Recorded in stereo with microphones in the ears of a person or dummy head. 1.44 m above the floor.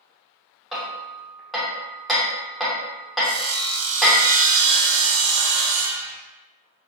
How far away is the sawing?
About 0.5 m.